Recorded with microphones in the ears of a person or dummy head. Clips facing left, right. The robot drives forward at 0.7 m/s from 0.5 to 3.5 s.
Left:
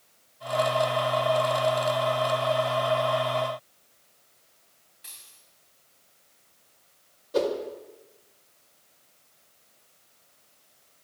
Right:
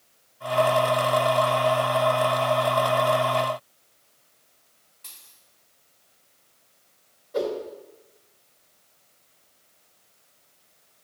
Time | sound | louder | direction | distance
5.0 | a dropped coin | right 1 dB | 15° left (ahead or behind) | 3.5 m
7.3 | a whoosh | left 1 dB | 45° left (ahead or behind) | 1.7 m